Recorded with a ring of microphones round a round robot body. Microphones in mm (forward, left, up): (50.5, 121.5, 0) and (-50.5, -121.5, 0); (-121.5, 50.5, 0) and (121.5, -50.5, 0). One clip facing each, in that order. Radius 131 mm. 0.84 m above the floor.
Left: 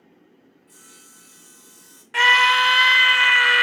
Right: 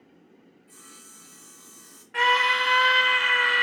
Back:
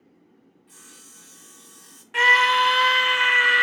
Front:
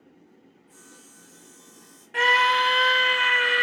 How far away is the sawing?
About 1.9 m.